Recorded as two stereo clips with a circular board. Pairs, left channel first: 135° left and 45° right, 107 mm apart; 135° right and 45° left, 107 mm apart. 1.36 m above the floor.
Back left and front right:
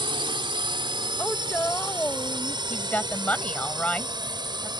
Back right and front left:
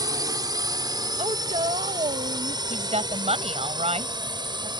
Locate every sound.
0.0 s a drone: 5° right; by 4.8 s straight ahead
1.2 s a woman speaking: 60° left
2.7 s a woman speaking: 60° left